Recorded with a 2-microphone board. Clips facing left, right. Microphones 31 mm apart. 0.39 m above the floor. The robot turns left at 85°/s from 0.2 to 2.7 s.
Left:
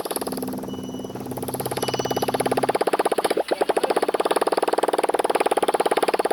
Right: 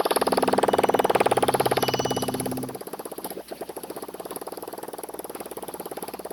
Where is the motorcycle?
25° right; by 6.3 s 125° left.